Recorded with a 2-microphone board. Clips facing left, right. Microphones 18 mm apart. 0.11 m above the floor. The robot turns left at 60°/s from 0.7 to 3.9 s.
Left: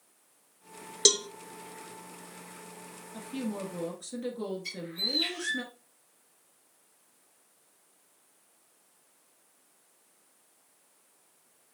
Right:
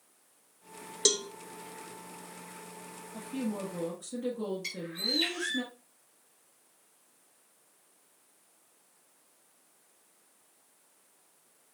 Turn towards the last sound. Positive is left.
turn(degrees=-55)  # may be behind; listen again after turning